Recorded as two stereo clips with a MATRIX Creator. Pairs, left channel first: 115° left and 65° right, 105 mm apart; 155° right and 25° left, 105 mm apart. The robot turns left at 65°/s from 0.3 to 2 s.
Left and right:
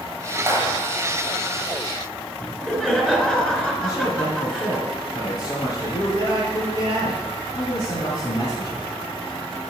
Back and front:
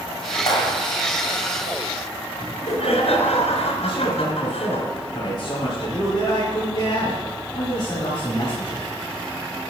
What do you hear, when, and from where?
0.5 s a clap: 125° right, 7 m; by 0.8 s 150° right, 7 m
2.4 s laughter: 165° right, 3.5 m
3.8 s a man speaking: 150° left, 3.5 m